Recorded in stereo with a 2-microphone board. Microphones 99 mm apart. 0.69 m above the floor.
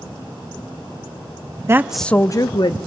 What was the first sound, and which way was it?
A woman speaking, 30° right (ahead or behind).